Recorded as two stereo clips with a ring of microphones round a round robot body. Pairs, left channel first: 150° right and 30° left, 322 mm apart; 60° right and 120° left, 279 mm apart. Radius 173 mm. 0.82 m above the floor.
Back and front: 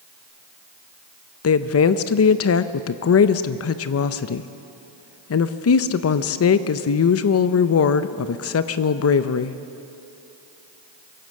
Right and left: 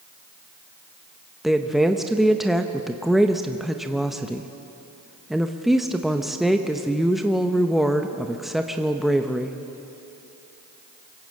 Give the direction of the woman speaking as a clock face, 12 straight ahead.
5 o'clock.